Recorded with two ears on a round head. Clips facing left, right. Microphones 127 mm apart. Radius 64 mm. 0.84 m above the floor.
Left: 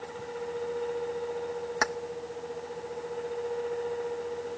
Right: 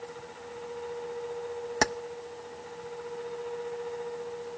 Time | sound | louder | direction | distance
1.8 | keys jangling | right 3 dB | 30° right (ahead or behind) | 0.6 m